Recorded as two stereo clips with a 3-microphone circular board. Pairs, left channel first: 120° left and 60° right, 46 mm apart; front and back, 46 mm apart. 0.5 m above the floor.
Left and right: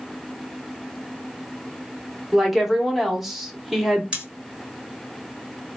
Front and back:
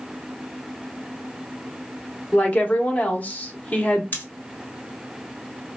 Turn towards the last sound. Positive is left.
turn(degrees=-5)